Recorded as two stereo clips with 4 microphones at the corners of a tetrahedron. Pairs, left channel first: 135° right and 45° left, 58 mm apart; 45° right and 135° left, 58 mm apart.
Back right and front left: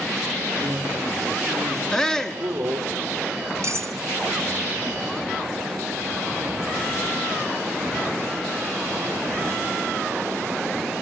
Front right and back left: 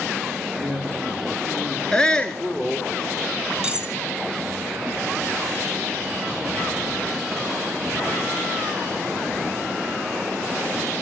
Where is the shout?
85° right, 1.1 m.